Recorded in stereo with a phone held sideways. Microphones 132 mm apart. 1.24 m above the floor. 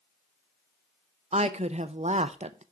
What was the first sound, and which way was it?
A woman speaking, 55° right (ahead or behind).